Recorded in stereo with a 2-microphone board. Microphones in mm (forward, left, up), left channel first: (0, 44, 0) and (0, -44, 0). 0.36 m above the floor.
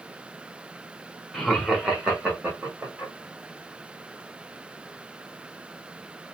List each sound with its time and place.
1.3 s laughter: 5° left (ahead or behind), 1.0 m; by 3.1 s 20° right (ahead or behind), 1.5 m